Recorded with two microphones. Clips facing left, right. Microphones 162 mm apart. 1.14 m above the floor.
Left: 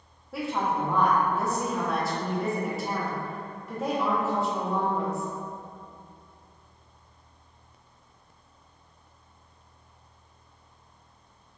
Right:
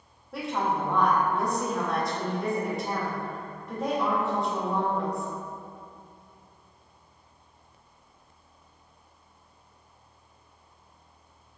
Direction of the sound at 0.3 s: Centre (ahead or behind).